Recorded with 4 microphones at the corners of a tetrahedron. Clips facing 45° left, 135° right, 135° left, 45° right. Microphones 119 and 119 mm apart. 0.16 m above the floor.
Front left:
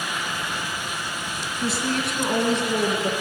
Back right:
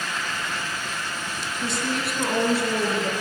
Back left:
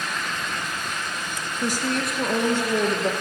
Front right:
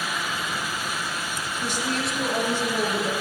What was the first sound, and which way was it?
A woman speaking, 125° left.